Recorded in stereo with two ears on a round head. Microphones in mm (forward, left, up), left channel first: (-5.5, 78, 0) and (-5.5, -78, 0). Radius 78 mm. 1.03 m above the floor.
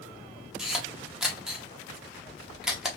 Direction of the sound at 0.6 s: 5° right (ahead or behind).